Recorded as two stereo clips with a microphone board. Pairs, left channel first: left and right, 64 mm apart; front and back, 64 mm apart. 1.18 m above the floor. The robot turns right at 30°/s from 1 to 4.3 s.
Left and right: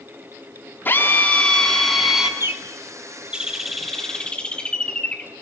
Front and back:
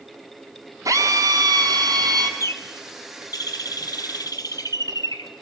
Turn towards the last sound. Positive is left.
turn(degrees=15)